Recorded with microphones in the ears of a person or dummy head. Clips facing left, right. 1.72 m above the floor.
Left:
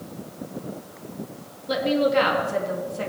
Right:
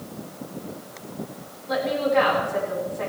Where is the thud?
I don't hear a thud.